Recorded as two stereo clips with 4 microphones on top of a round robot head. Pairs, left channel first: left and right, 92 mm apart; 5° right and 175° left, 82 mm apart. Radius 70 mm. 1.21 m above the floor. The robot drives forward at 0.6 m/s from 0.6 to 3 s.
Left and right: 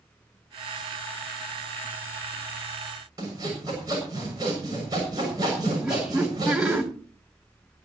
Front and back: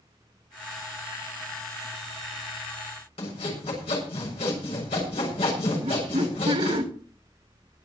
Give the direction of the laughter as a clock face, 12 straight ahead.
6 o'clock.